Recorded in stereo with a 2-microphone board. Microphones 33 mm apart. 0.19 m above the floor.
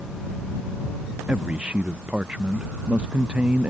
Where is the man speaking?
40° right (ahead or behind).